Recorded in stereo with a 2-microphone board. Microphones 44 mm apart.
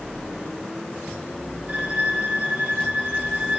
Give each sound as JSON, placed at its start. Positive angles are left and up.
{"t": 1.7, "sound": "a violin", "side_deg": -30, "distance_m": 2.5}